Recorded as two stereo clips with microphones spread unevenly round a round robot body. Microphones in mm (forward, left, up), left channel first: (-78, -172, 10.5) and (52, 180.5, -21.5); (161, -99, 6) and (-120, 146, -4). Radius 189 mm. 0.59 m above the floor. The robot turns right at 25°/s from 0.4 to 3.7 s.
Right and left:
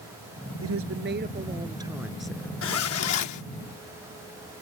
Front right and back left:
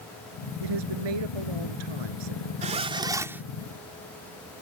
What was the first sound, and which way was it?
A woman speaking, 120° left.